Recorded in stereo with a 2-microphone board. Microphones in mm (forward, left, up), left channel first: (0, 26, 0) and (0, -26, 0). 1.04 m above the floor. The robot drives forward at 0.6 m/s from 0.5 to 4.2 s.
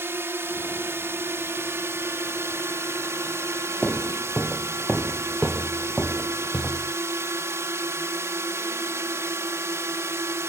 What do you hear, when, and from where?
0.0 s a drone: 55° right (ahead or behind); by 10.5 s 65° right (ahead or behind)
3.8 s footsteps: 15° left (ahead or behind); by 7.0 s centre (ahead or behind)